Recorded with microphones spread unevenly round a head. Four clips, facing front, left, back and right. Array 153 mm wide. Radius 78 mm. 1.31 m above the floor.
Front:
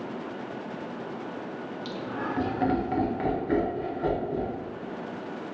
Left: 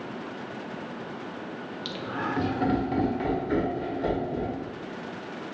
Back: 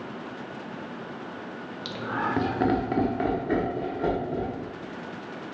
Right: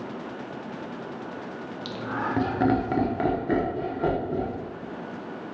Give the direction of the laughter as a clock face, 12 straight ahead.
6 o'clock.